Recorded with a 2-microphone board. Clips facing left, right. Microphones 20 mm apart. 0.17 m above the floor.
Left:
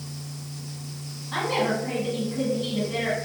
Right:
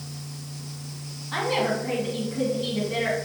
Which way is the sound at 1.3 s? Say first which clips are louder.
Even; 5° right (ahead or behind).